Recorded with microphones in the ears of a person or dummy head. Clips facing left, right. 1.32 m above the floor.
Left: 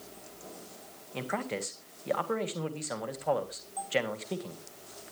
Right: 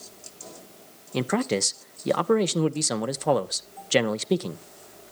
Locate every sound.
1.1 s a man speaking: 60° right (ahead or behind), 0.9 m